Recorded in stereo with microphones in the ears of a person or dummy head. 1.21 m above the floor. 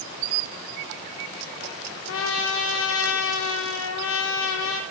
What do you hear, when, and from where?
2.1 s a trumpet: 75° left (ahead or behind), 2 m